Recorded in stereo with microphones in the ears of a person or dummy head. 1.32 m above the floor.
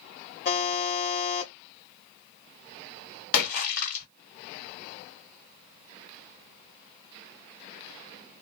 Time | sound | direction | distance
0.5 | a buzzer | 45° left (ahead or behind) | 1.1 m
3.3 | a splash | 55° left (ahead or behind) | 1.9 m